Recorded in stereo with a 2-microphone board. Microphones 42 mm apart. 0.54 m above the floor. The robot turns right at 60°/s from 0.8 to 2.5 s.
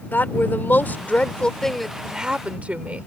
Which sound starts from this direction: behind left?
A woman speaking, at 0.1 s.